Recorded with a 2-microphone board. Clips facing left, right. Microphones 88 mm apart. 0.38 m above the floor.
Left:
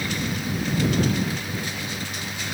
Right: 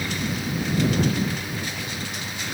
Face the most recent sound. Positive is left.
No sound to turn to.